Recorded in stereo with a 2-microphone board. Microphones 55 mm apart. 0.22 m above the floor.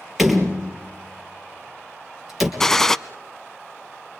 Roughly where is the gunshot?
Centre.